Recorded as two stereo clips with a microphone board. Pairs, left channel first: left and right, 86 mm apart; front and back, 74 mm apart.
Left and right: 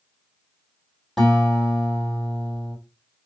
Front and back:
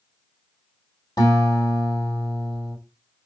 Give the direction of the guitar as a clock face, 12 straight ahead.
12 o'clock.